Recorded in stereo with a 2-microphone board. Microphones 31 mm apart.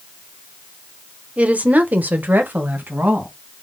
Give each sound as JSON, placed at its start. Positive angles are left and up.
{"t": 1.4, "sound": "a woman speaking", "side_deg": -45, "distance_m": 1.0}